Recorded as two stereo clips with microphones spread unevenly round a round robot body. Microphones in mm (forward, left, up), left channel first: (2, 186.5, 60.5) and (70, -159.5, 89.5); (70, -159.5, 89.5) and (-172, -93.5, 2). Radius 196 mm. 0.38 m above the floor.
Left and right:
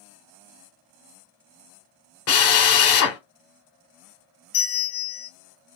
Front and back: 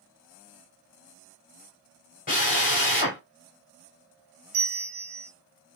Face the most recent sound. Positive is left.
turn(degrees=145)